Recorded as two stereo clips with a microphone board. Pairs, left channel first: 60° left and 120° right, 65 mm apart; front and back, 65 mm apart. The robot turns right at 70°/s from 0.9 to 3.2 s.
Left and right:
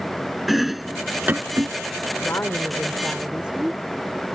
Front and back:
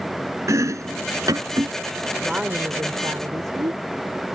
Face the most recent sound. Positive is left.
turn(degrees=165)